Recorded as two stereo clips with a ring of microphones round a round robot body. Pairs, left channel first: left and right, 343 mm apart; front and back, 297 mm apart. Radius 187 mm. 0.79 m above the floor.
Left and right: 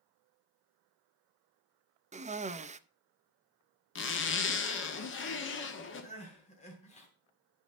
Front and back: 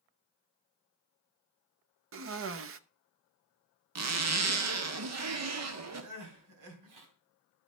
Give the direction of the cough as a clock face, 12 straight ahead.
5 o'clock.